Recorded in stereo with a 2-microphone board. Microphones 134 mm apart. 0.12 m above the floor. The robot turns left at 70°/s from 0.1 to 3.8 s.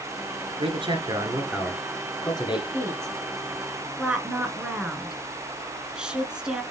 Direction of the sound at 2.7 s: 25° right (ahead or behind).